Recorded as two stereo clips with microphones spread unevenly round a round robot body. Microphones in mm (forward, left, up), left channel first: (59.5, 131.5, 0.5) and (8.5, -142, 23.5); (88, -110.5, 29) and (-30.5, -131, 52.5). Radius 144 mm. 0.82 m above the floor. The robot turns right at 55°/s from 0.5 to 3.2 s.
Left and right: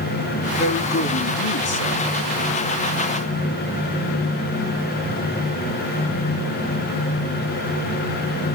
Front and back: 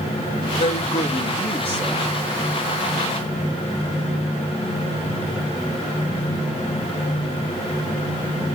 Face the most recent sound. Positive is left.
turn(degrees=160)